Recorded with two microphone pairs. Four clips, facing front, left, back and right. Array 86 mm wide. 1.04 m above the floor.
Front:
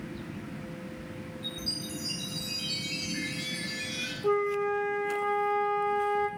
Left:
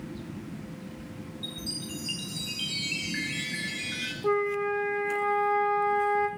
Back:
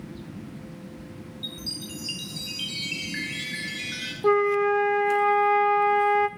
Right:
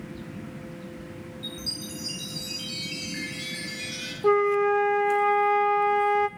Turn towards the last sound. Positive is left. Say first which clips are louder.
# right 6 dB, back 6 dB
turn(degrees=-160)